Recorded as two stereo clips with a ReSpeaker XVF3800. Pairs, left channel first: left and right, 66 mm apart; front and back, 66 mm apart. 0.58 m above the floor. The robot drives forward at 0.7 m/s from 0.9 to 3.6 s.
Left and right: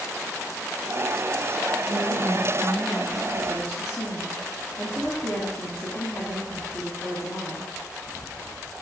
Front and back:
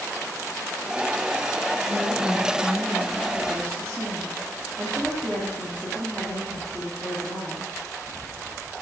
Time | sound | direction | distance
1.9 | a woman speaking | 130° left | 3.5 m